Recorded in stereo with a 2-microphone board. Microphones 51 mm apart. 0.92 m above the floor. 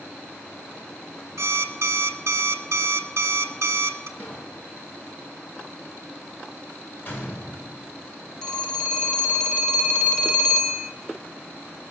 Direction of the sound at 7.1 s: 40° left (ahead or behind).